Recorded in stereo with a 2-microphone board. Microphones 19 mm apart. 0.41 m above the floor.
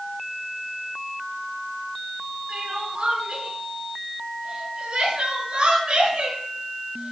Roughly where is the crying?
Right.